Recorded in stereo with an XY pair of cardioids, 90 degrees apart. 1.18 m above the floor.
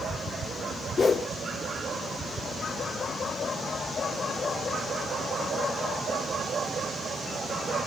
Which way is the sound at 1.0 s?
45° left.